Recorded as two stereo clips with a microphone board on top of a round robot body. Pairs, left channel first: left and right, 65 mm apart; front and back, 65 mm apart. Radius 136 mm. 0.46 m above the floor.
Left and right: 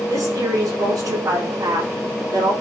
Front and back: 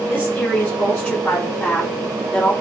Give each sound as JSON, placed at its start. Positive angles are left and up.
{"t": 0.1, "sound": "a woman speaking", "azimuth_deg": -60, "distance_m": 5.5}